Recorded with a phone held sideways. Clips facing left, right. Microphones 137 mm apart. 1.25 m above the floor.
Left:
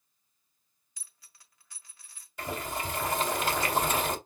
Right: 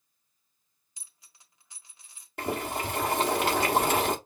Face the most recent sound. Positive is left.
turn(degrees=-65)  # may be behind; listen again after turning